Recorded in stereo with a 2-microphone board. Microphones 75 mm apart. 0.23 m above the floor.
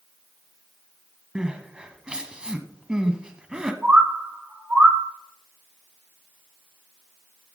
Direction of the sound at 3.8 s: 20° right (ahead or behind).